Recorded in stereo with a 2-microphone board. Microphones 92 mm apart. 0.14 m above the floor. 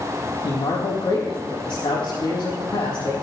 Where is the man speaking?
65° left (ahead or behind), 4.5 m.